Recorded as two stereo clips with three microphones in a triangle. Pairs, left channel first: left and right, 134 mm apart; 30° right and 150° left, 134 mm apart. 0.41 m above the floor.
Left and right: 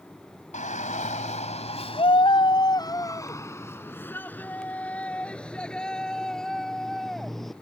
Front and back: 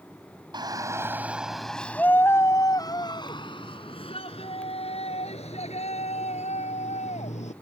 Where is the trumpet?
No trumpet in this recording.